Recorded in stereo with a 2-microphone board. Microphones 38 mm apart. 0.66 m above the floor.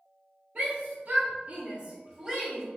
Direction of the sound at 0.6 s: 40° right (ahead or behind).